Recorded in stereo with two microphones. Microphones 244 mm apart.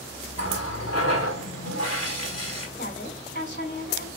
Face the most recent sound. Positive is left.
turn(degrees=45)  # may be behind; listen again after turning